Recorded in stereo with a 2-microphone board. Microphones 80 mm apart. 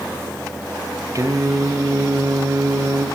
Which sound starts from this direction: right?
Singing, at 1.1 s.